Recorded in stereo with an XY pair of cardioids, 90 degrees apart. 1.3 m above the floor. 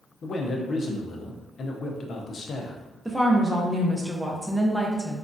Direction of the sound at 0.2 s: 55° left.